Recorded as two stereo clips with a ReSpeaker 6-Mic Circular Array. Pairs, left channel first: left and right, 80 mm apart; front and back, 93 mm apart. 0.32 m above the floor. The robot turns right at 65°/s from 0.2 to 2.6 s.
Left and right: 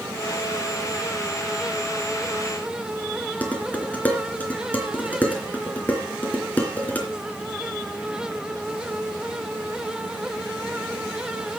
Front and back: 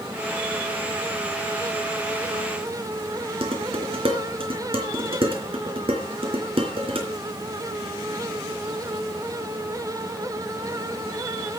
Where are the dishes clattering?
160° left, 3 m.